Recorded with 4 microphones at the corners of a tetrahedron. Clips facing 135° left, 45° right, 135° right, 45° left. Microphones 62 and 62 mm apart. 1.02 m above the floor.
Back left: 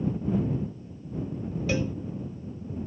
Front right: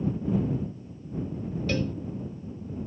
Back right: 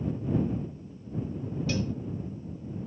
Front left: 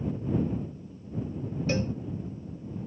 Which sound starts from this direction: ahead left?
A cowbell, at 1.7 s.